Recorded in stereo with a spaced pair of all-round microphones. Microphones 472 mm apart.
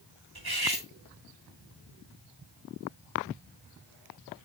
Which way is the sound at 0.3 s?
50° right (ahead or behind).